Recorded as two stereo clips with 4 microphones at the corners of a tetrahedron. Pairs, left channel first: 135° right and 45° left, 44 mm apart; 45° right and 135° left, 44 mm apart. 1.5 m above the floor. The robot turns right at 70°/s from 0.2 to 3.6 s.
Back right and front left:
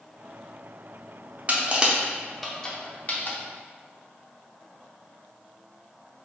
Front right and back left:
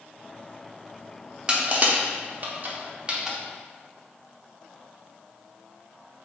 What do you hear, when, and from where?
1.5 s crushing: 75° left, 0.5 m; by 3.4 s 150° right, 0.5 m